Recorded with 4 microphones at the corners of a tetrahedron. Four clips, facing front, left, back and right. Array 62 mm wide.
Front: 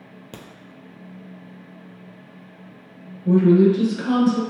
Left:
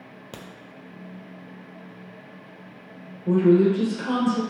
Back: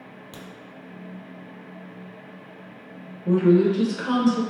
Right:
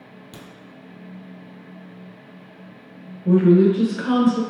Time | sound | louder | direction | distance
0.3 | a crack | left 2 dB, front 3 dB | 45° left | 0.8 m
3.2 | a woman speaking | right 3 dB, front 3 dB | 95° right | 1.4 m